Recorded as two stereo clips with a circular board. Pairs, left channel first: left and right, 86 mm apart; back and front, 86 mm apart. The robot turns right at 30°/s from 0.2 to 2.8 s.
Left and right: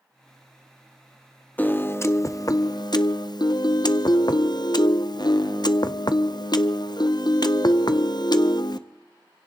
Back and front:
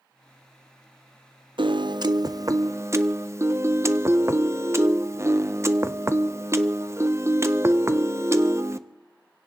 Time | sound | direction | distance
1.6 | a piano | 20° left | 0.5 m